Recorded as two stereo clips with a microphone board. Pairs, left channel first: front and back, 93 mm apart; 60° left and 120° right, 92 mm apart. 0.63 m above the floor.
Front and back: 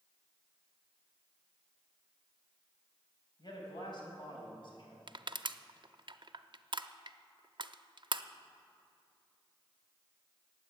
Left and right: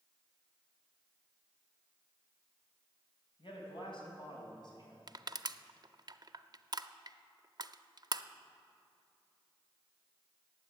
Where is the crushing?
155° right, 0.5 m.